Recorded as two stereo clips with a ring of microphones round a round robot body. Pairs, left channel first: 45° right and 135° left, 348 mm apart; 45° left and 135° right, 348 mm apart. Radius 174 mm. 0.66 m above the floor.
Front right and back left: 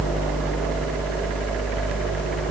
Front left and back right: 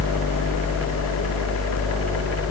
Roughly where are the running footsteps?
I don't hear running footsteps.